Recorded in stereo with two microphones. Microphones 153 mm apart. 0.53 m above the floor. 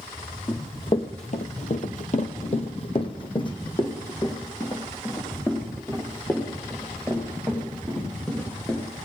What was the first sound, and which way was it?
Running footsteps, 30° left (ahead or behind).